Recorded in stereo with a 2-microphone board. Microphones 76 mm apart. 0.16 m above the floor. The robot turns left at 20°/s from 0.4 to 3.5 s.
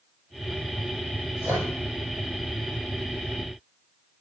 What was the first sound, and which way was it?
A microwave, 35° right (ahead or behind).